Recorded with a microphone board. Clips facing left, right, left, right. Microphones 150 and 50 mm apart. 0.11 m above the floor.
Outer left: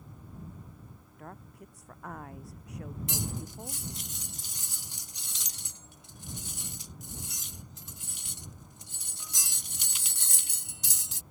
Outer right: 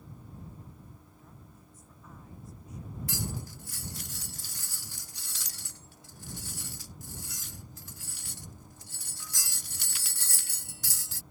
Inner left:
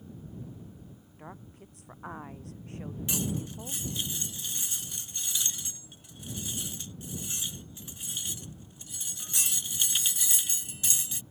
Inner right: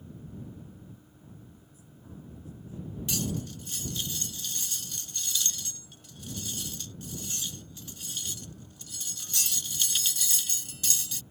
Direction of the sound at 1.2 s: 65° left (ahead or behind).